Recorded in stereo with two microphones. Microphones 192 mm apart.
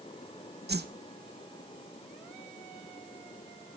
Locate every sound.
0.7 s a whoosh: 60° right (ahead or behind), 0.5 m